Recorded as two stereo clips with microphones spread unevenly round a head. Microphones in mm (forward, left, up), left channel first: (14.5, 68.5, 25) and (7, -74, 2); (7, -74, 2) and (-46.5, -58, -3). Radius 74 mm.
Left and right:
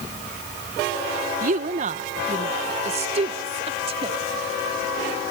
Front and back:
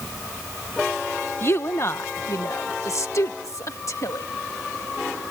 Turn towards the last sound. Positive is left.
turn(degrees=-40)